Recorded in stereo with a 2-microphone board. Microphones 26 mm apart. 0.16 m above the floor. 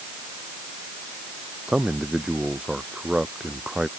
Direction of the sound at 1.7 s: 35° right (ahead or behind).